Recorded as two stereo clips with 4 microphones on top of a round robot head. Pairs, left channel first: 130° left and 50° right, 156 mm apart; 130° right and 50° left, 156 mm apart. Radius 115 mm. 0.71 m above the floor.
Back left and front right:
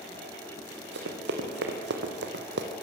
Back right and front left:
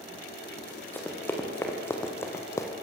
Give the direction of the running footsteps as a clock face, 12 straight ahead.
2 o'clock.